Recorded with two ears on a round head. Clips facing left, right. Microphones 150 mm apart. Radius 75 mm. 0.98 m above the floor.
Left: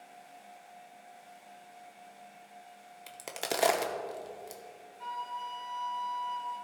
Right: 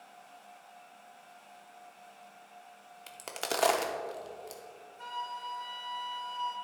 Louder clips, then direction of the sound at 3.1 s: Even; 10° left (ahead or behind).